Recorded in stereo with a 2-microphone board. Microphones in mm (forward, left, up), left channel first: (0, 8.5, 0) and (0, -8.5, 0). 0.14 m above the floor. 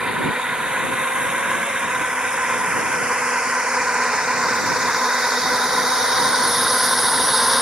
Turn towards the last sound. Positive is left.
turn(degrees=-20)  # may be behind; listen again after turning